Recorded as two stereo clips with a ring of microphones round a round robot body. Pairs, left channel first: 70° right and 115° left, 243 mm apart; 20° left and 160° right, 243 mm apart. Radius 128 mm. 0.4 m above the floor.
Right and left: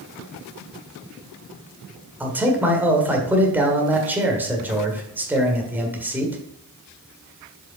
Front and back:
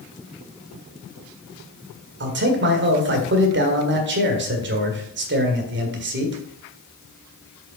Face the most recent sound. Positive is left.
turn(degrees=-165)